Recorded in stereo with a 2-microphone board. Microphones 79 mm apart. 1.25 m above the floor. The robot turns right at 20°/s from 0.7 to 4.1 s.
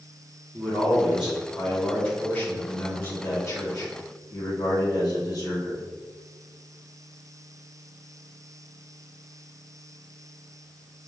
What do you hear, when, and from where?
0.5 s a man speaking: 15° right, 1.5 m; by 5.8 s 55° left, 1.5 m